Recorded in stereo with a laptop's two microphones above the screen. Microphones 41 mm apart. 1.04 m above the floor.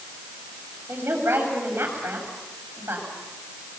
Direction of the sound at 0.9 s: 80° right.